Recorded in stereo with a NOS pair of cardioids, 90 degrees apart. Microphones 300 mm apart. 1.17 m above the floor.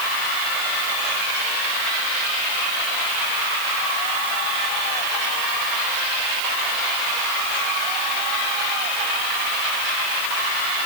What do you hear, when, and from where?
Only background noise.